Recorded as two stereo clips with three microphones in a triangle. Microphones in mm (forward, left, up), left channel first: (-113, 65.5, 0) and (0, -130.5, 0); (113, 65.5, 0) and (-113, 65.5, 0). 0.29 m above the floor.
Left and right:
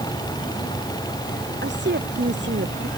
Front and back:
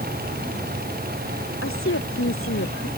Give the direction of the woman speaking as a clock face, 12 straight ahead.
1 o'clock.